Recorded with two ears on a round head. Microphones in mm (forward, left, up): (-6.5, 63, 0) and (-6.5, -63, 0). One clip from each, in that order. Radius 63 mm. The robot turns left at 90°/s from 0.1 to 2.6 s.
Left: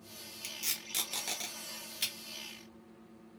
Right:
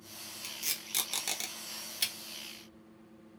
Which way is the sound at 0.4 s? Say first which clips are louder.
Even; 5° left (ahead or behind).